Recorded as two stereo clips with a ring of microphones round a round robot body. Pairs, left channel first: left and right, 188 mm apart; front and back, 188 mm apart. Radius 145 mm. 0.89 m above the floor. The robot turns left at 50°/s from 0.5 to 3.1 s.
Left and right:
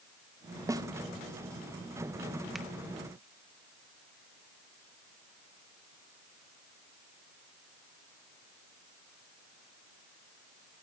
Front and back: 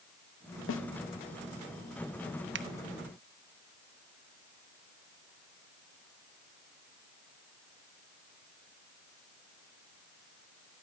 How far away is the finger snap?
About 1.2 m.